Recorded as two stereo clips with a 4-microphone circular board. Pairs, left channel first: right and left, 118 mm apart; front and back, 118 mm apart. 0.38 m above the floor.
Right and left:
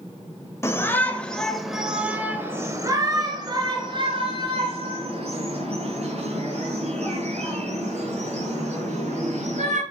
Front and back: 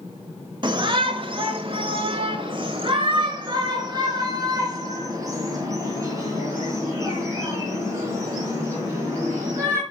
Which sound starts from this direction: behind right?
A shout, at 0.6 s.